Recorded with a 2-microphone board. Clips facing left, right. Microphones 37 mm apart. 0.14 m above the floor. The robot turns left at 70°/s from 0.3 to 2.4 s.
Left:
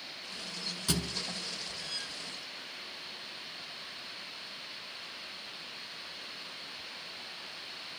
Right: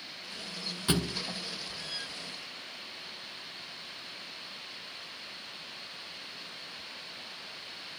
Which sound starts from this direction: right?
A thud, at 0.9 s.